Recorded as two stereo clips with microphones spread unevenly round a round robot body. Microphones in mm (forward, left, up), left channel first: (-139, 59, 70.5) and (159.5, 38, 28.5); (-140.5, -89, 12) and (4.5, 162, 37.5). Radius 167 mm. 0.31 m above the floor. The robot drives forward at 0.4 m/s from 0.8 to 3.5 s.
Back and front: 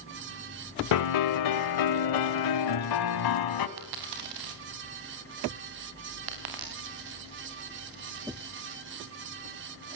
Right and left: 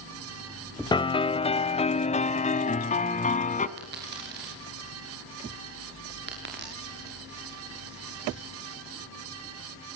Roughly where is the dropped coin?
Ahead.